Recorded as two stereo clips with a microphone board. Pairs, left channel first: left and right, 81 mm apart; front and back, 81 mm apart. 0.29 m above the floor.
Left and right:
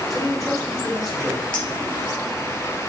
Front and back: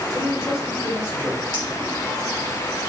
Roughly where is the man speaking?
Ahead.